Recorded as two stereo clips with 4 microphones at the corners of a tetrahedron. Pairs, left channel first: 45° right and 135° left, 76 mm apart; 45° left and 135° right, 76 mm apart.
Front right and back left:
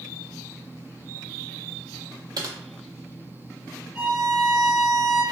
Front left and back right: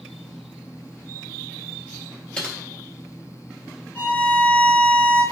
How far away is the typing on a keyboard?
About 0.5 m.